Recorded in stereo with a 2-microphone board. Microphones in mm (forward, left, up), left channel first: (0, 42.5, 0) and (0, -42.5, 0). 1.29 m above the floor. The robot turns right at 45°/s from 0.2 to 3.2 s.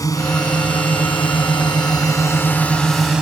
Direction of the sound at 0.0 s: 45° left (ahead or behind).